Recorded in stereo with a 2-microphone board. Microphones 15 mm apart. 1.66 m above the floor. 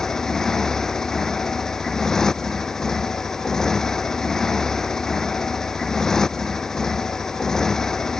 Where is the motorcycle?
35° left (ahead or behind).